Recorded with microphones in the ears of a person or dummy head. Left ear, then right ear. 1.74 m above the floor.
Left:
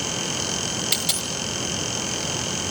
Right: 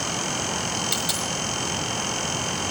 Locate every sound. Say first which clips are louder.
0.9 s a dropped coin: left 1 dB; 10° left (ahead or behind), 1.5 m